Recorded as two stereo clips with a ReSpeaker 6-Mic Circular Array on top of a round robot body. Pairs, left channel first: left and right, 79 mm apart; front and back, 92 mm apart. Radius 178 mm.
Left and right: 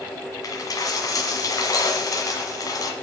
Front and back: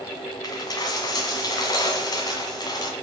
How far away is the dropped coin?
About 1.5 m.